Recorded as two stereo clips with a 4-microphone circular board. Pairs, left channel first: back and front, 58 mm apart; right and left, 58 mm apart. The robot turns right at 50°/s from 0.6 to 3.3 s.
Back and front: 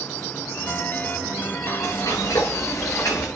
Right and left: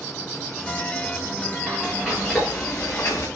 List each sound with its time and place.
1.6 s frying: 160° left, 7 m; by 3.3 s 120° right, 7 m